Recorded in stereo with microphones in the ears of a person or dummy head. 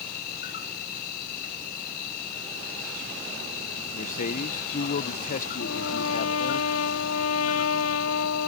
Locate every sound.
0.0 s an insect: 50° left (ahead or behind)
3.9 s a man speaking: 50° left (ahead or behind)
5.6 s a trumpet: 80° left